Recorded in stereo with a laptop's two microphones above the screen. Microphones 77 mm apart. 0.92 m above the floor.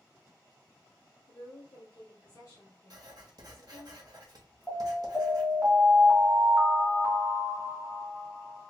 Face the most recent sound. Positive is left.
turn(degrees=-25)  # may be behind; listen again after turning